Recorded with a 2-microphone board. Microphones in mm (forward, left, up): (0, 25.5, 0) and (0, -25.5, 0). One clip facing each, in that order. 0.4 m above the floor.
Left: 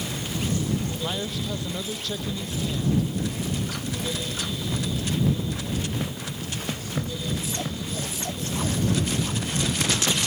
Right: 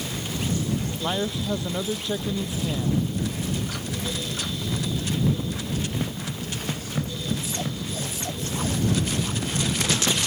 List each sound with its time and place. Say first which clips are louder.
1.0 s a man speaking: right 3 dB; 20° right (ahead or behind)